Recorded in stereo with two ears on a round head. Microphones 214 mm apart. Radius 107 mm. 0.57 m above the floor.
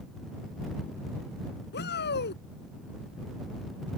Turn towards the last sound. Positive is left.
turn(degrees=45)  # may be behind; listen again after turning